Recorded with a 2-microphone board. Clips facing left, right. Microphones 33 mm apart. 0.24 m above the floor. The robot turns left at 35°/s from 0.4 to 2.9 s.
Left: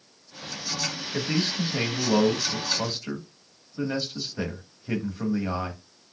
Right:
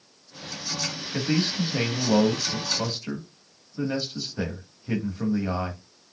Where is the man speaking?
10° right (ahead or behind), 1.0 m; by 5.8 s 10° left (ahead or behind), 1.0 m.